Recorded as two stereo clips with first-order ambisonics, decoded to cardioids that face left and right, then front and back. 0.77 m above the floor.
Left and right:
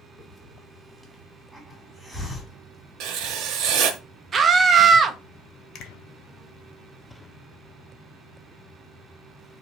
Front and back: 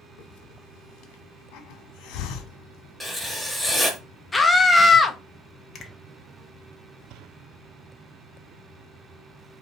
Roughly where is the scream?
Right.